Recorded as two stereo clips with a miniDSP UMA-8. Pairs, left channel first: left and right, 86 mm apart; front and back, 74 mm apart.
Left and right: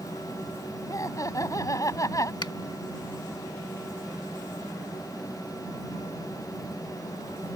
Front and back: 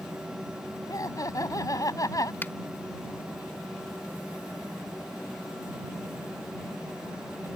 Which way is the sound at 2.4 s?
65° left.